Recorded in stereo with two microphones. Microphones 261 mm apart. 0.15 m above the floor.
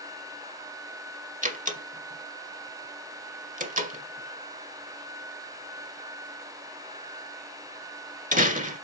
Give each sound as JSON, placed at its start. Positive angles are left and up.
{"t": 1.4, "sound": "a door slam", "side_deg": -30, "distance_m": 1.9}